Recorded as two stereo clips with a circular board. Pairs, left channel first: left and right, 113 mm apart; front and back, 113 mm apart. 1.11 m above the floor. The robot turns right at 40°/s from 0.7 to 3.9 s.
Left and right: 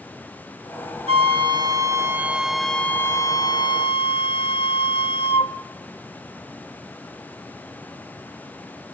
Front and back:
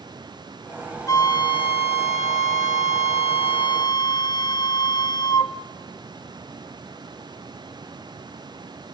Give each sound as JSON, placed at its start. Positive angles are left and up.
{"t": 1.1, "sound": "a flute", "azimuth_deg": -60, "distance_m": 1.1}